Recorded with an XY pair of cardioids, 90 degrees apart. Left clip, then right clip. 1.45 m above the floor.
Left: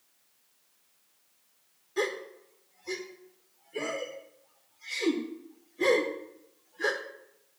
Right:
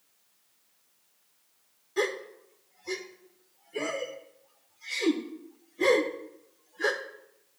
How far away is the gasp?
About 1.1 m.